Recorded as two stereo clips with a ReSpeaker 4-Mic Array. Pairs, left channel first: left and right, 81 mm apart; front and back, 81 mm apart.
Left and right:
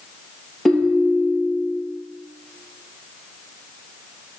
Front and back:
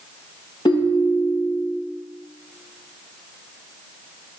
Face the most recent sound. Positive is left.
turn(degrees=0)